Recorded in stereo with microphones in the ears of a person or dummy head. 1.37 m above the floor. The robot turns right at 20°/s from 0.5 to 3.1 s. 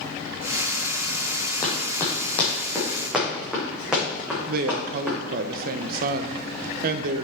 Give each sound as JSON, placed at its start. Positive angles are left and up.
{"t": 1.6, "sound": "running footsteps", "side_deg": 20, "distance_m": 3.0}
{"t": 4.5, "sound": "a woman speaking", "side_deg": -55, "distance_m": 0.7}